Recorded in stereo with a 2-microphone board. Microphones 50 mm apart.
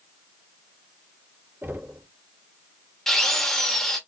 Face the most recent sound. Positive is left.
turn(degrees=10)  # may be behind; listen again after turning